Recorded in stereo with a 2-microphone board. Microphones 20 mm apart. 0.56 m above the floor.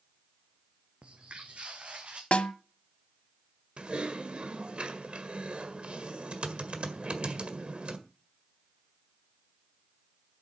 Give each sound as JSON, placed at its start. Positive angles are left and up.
{"t": 1.0, "sound": "footsteps", "side_deg": -70, "distance_m": 1.7}
{"t": 2.3, "sound": "a snare drum", "side_deg": 85, "distance_m": 1.1}
{"t": 3.8, "sound": "typing on a keyboard", "side_deg": -65, "distance_m": 1.7}